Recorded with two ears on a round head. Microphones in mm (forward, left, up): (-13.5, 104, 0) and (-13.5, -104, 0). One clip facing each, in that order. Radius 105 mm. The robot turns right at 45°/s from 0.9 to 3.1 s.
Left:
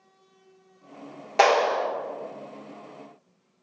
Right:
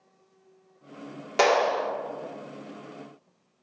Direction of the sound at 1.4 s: 20° right (ahead or behind).